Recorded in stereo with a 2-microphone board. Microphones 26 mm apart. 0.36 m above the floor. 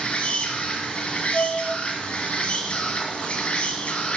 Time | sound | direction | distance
0.0 | an insect | 55° left (ahead or behind) | 1.7 m
1.3 | a flute | 55° left (ahead or behind) | 1.8 m